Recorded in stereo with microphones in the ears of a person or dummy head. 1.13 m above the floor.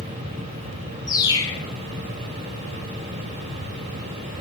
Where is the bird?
20° left (ahead or behind), 0.8 m.